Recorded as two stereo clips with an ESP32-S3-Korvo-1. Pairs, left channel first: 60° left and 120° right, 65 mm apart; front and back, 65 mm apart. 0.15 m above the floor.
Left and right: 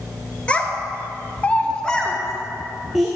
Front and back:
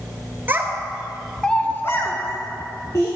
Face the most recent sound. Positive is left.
turn(degrees=-30)